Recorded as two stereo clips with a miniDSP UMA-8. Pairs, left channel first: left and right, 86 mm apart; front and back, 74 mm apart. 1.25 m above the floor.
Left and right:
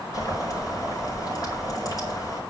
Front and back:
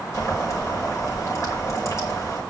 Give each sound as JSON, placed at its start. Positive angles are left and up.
{"t": 0.1, "sound": "boiling", "azimuth_deg": 45, "distance_m": 3.5}